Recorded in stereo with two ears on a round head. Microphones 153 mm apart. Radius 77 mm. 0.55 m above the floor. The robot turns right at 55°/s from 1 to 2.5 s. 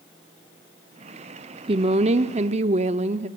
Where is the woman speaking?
125° right, 0.8 m; by 3.3 s 80° right, 0.8 m.